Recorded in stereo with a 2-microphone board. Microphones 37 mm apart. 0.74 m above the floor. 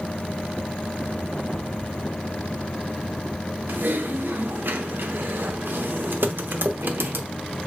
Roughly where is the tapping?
Right.